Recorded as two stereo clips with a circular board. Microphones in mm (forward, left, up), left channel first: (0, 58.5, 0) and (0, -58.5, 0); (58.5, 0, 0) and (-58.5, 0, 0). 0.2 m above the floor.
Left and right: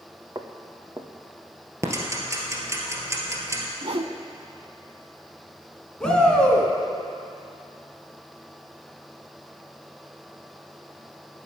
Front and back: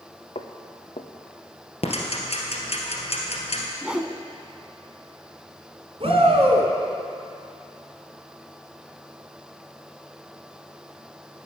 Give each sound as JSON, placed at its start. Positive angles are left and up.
{"t": 0.3, "sound": "footsteps", "azimuth_deg": -30, "distance_m": 1.3}
{"t": 1.8, "sound": "ticking", "azimuth_deg": -25, "distance_m": 2.0}
{"t": 3.8, "sound": "a whoosh", "azimuth_deg": -100, "distance_m": 0.6}
{"t": 6.0, "sound": "a shout", "azimuth_deg": 170, "distance_m": 2.5}